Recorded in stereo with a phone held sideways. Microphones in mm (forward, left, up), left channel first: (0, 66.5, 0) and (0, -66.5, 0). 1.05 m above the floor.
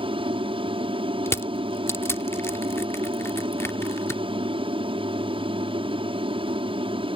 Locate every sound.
0.0 s an aircraft: 40° right (ahead or behind)
1.3 s crushing: 20° left (ahead or behind)